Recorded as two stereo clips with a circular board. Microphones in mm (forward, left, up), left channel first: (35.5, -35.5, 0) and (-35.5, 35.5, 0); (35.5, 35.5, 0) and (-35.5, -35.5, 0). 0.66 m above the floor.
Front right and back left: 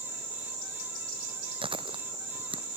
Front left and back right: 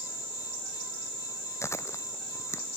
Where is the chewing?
105° left.